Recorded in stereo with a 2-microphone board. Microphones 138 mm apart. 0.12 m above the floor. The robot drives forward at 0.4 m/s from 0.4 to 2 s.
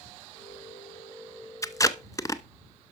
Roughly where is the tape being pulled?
Left.